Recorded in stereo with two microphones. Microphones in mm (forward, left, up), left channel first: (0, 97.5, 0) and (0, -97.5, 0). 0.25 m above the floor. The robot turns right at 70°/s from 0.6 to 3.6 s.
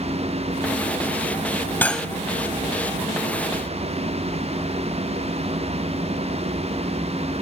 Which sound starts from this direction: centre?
Cutlery clinking, at 1.8 s.